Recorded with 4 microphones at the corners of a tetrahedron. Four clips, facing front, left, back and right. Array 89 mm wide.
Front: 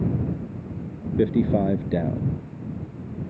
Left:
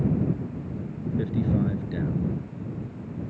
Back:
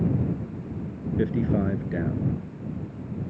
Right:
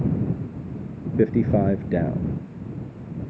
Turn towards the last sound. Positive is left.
turn(degrees=-60)